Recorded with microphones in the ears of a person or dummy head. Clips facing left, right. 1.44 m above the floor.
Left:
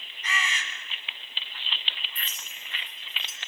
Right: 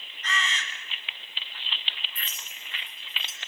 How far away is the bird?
About 4 m.